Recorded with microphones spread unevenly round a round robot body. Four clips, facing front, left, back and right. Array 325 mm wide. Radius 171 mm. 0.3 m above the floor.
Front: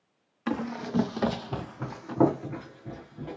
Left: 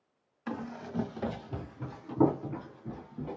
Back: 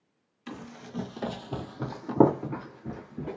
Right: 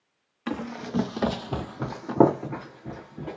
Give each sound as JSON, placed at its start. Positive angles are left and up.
{"t": 0.5, "sound": "running footsteps", "azimuth_deg": -40, "distance_m": 0.8}